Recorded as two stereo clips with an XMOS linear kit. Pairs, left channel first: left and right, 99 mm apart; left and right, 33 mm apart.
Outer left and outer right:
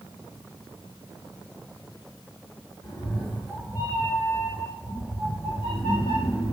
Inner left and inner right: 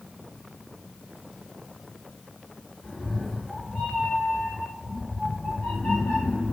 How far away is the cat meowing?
About 4 m.